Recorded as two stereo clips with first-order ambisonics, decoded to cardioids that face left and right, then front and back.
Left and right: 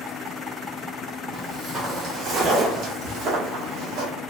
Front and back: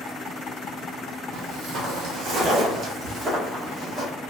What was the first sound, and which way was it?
Footsteps, 160° right.